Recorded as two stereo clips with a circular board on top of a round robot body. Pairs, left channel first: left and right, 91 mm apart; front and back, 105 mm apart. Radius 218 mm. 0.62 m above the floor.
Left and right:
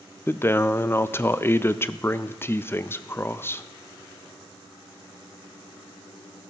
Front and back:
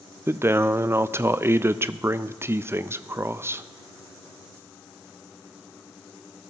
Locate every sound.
0.3 s a man speaking: 130° left, 0.5 m